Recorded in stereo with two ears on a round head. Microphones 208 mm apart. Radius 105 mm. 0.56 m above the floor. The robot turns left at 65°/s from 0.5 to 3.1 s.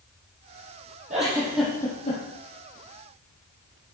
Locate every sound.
1.1 s a giggle: 35° right (ahead or behind), 6 m; by 2.2 s 40° left (ahead or behind), 6 m